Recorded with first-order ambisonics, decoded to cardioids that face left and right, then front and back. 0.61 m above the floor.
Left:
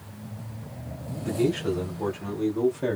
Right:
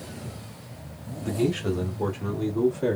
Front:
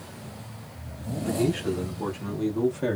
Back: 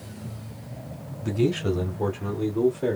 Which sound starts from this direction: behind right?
A man speaking, at 1.2 s.